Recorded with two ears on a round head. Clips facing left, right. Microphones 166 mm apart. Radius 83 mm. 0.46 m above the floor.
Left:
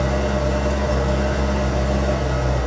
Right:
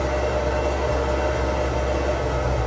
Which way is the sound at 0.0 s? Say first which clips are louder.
Left 1 dB; 65° left (ahead or behind).